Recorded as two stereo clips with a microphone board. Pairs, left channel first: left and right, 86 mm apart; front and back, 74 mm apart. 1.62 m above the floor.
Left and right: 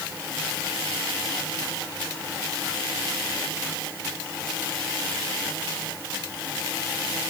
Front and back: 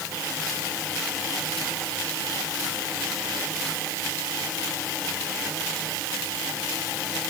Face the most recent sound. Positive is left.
No sound to turn to.